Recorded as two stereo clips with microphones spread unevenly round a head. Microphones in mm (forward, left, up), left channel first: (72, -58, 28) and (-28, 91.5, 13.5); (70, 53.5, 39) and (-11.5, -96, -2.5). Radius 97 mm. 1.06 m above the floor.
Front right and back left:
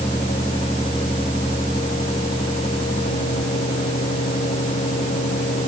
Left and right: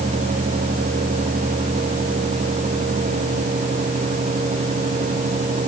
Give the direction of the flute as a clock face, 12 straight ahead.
I don't hear a flute.